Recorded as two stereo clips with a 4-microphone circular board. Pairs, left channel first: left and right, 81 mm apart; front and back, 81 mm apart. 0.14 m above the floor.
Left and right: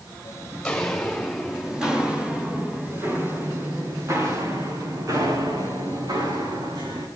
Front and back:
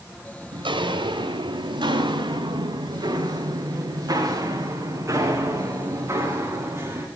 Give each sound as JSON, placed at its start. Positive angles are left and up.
{"t": 0.5, "sound": "footsteps", "azimuth_deg": 175, "distance_m": 5.0}